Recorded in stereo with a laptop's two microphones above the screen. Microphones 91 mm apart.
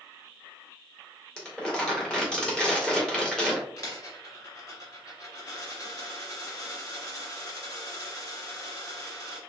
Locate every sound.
1.4 s crumpling: 10° left (ahead or behind), 2 m
3.8 s a dropped coin: 45° left (ahead or behind), 2 m